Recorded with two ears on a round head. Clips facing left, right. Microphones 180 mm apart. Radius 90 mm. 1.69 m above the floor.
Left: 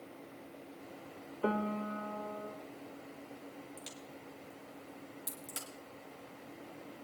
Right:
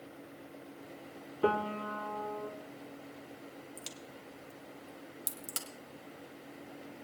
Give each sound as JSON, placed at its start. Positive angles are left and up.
{"t": 1.4, "sound": "a piano", "side_deg": -60, "distance_m": 0.9}
{"t": 3.8, "sound": "a crack", "side_deg": -60, "distance_m": 2.0}